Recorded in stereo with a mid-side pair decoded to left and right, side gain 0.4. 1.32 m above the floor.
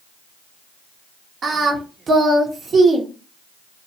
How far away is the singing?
About 0.7 m.